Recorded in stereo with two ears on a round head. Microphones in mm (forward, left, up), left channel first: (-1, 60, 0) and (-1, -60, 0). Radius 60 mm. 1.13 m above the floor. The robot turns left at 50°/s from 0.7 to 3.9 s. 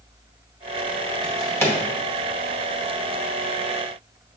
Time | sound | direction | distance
1.2 | a drawer | 35° left (ahead or behind) | 0.7 m